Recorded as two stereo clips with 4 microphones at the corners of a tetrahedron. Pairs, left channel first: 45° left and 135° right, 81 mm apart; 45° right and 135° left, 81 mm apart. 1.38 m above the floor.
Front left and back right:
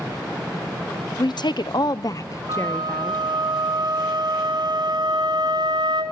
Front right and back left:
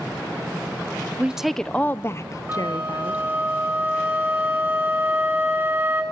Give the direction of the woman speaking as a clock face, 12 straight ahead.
10 o'clock.